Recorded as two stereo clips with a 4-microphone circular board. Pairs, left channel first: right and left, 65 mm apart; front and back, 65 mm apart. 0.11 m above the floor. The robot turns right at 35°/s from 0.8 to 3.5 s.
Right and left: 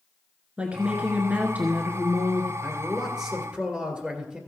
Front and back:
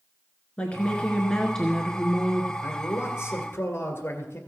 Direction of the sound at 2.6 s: 10° right.